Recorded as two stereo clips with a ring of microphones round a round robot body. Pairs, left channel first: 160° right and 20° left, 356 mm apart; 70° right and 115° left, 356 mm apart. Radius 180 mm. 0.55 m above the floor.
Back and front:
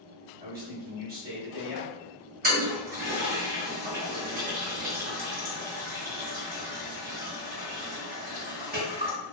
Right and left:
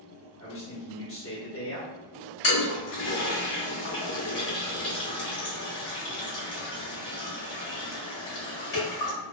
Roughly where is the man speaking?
Ahead right.